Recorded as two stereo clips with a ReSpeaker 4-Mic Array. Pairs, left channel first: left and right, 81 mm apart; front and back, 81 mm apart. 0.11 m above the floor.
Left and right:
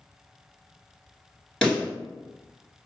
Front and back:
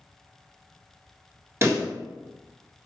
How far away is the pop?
About 1.3 m.